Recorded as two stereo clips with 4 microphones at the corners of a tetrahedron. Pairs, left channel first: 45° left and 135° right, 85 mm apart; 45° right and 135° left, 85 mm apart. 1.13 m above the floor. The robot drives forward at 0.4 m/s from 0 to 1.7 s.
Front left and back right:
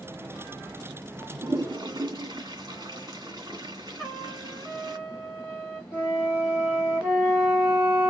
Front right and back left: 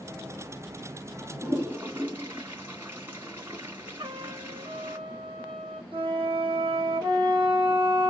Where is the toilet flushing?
160° right, 1.9 m.